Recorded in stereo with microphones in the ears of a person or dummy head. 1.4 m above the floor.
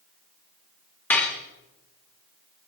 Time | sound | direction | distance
1.1 | dishes clattering | 5° left (ahead or behind) | 1.5 m